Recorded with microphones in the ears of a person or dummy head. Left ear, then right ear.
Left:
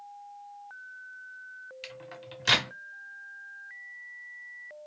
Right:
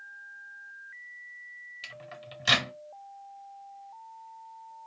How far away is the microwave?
About 0.7 m.